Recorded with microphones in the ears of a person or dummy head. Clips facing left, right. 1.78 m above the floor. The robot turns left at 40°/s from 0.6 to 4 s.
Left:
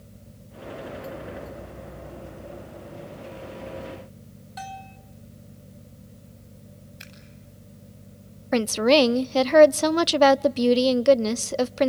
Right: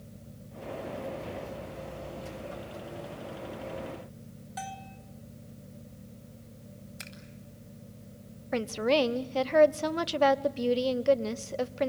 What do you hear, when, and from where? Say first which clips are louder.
4.6 s a bell: left 3 dB; 10° right (ahead or behind), 2.0 m
7.0 s scissors: even; 85° right, 8.5 m
8.5 s a woman speaking: left 8 dB; 70° left (ahead or behind), 0.6 m